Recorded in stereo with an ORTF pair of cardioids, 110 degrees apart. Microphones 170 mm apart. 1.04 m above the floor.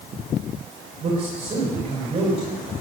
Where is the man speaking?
40° right, 3.5 m.